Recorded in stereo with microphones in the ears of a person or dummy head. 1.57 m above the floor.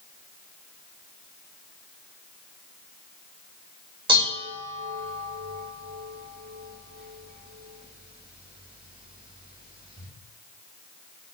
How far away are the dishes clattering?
About 4.5 m.